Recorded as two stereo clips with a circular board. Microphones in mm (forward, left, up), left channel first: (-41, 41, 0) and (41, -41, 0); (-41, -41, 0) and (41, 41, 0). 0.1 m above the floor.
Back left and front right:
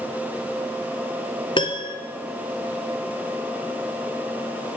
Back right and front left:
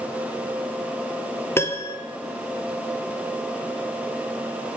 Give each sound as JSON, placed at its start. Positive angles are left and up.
{"t": 1.6, "sound": "a piano", "azimuth_deg": 160, "distance_m": 1.0}